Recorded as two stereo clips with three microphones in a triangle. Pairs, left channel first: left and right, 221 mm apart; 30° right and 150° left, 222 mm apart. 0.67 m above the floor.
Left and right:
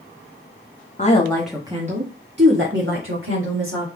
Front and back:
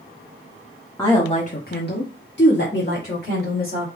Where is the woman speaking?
45° left, 1.2 m; by 3.9 s 75° right, 3.5 m.